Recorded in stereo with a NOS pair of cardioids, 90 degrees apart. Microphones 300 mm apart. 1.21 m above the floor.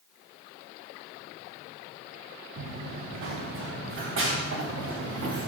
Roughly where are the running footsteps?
Ahead right.